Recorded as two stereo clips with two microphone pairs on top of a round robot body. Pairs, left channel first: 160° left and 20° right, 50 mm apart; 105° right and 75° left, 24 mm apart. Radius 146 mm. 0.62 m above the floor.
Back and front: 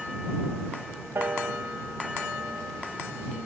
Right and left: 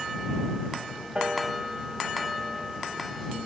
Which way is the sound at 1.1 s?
25° left.